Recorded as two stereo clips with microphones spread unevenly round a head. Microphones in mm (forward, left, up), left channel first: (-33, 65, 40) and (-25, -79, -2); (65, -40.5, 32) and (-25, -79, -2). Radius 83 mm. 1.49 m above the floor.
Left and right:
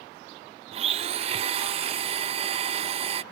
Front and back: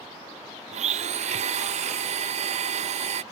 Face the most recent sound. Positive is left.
turn(degrees=-140)